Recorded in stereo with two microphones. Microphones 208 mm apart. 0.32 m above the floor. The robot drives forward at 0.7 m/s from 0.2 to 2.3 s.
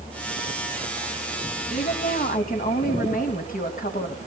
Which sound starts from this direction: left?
A woman speaking, at 1.7 s.